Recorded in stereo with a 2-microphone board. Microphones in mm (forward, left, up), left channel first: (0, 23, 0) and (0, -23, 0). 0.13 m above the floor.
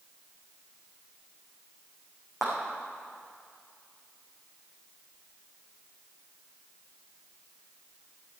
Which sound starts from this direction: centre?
A clap, at 2.4 s.